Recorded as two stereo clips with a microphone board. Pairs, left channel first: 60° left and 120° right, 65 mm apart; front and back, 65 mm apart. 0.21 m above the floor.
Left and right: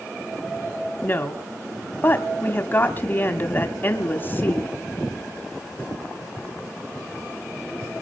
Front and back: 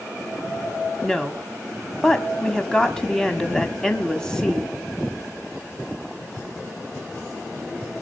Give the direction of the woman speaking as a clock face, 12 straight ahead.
10 o'clock.